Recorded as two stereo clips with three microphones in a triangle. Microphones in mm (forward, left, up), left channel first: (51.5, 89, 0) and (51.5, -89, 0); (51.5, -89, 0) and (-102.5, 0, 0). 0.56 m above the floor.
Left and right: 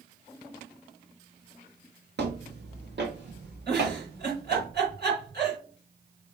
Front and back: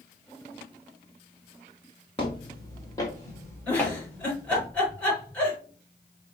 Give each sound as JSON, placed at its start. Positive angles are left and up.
{"t": 2.2, "sound": "footsteps", "azimuth_deg": -90, "distance_m": 2.5}
{"t": 3.7, "sound": "a giggle", "azimuth_deg": -110, "distance_m": 4.5}